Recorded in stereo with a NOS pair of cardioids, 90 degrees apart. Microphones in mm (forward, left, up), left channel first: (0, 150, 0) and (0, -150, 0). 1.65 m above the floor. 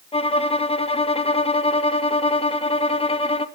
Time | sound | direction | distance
0.1 | a violin | 20° left | 1.5 m